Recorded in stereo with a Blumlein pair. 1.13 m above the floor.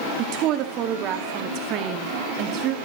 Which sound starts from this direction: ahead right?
A woman speaking, at 0.2 s.